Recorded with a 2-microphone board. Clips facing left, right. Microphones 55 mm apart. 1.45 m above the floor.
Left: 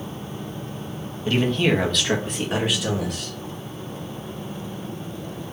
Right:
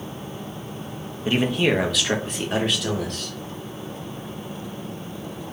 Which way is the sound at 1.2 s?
20° right (ahead or behind).